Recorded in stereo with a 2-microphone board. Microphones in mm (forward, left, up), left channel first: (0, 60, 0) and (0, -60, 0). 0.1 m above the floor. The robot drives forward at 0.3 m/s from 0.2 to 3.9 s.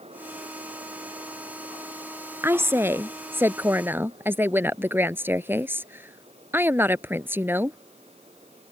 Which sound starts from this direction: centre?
A woman speaking, at 2.4 s.